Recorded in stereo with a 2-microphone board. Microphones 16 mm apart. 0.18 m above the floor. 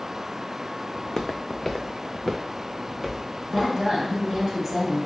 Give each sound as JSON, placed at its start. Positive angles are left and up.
{"t": 1.0, "sound": "footsteps", "side_deg": 45, "distance_m": 0.5}
{"t": 3.5, "sound": "a woman speaking", "side_deg": -30, "distance_m": 1.9}